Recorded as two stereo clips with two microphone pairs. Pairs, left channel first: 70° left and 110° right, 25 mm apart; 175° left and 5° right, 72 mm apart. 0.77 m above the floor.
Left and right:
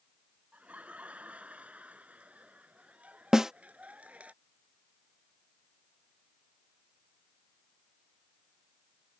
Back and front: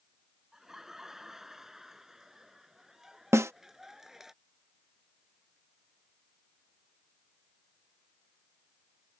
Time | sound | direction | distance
0.5 | laughter | 85° right | ?
3.3 | a snare drum | 45° right | ?